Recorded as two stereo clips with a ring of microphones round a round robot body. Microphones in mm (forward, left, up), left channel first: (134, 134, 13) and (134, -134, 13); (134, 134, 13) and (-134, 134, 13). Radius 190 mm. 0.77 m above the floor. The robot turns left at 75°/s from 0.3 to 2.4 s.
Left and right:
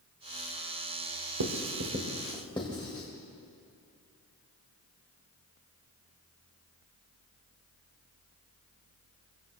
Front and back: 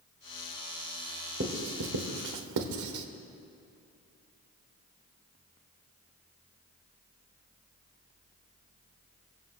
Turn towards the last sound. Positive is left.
turn(degrees=170)